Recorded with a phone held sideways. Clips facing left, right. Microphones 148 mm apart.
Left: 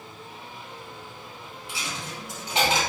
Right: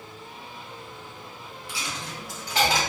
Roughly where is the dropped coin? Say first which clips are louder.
Even; left.